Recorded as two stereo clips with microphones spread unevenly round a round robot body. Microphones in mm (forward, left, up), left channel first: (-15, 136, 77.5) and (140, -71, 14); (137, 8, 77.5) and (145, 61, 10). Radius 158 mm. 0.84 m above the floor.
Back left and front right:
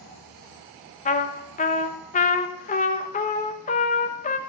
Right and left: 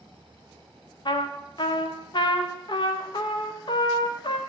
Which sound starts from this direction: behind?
A trumpet, at 1.1 s.